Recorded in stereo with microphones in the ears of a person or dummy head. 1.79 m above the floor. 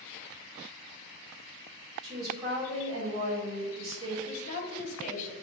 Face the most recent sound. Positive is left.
turn(degrees=40)  # may be behind; listen again after turning